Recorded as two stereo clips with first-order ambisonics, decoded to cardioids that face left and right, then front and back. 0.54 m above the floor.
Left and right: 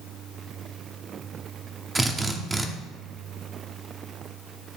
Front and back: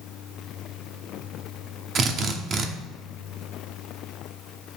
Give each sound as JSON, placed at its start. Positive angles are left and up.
{"t": 1.9, "sound": "a drill", "azimuth_deg": -155, "distance_m": 0.7}